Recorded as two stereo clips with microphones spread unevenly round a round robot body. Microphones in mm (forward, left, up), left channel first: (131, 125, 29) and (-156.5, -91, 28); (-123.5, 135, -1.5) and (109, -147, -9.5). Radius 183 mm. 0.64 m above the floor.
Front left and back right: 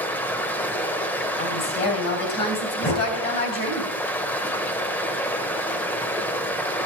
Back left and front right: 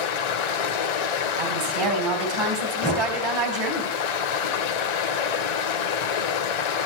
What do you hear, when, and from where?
0.0 s running water: 120° left, 1.1 m
1.4 s a woman speaking: 25° right, 3 m
2.8 s knocking: 55° left, 8.5 m